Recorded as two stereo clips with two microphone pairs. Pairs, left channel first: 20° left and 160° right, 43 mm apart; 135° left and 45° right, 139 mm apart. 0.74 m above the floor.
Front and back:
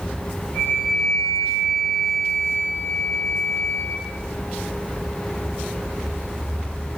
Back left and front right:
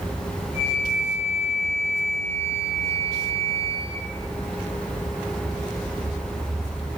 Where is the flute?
30° left, 1.3 m.